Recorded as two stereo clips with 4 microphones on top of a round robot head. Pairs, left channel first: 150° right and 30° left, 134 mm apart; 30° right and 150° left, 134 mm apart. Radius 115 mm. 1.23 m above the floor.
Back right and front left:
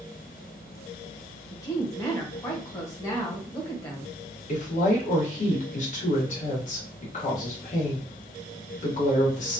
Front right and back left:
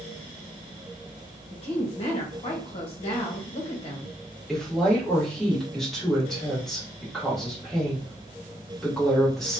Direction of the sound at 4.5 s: 120° right.